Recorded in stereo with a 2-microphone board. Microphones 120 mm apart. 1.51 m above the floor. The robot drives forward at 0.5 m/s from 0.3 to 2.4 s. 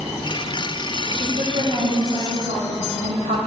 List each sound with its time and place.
1.1 s a woman speaking: 80° right, 2.5 m; by 3.4 s 65° right (ahead or behind), 2.5 m